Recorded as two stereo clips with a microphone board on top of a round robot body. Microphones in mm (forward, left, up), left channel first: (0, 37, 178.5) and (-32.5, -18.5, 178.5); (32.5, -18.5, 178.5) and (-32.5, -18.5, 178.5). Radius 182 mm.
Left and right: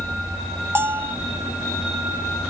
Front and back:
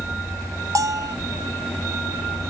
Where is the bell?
165° right, 0.9 m.